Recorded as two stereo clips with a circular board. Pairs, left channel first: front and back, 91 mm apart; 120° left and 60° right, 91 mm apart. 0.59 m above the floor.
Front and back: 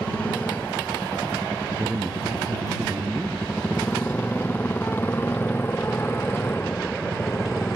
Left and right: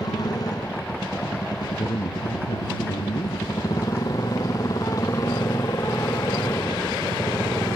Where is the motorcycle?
75° left; by 7.8 s 60° left.